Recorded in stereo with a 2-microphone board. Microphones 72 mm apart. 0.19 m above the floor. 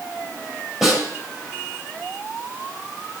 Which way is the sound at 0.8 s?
5° right (ahead or behind).